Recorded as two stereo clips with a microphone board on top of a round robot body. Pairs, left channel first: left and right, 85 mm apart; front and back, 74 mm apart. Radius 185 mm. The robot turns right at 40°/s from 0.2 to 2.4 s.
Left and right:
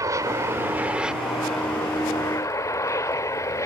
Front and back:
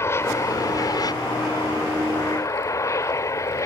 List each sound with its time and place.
0.0 s an aircraft: 45° right; by 3.7 s 40° left